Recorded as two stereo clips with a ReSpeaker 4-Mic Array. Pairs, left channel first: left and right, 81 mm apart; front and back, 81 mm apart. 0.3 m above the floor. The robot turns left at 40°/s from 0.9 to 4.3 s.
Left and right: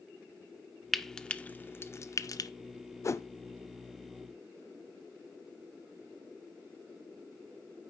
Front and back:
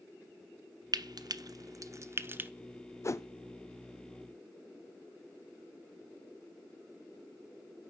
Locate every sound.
0.9 s frying: straight behind, 0.5 m; by 2.5 s 115° left, 0.5 m
3.0 s a whoosh: 45° left, 0.6 m; by 3.3 s 35° left, 0.6 m